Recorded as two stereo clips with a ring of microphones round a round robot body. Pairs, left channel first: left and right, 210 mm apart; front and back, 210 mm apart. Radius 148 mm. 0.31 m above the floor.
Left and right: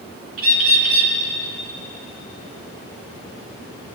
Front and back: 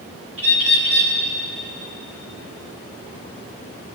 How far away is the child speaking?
No child speaking in this recording.